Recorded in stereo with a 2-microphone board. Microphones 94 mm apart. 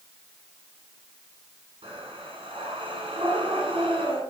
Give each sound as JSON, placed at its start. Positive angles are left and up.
{"t": 1.8, "sound": "breathing", "side_deg": -75, "distance_m": 6.5}